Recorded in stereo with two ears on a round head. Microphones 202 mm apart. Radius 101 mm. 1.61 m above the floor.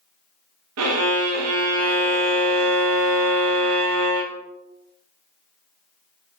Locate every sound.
0.8 s a violin: 70° right (ahead or behind), 0.6 m